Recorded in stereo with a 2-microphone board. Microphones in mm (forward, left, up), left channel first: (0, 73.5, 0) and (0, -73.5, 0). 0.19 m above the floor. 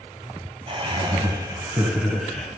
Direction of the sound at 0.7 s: 40° right (ahead or behind).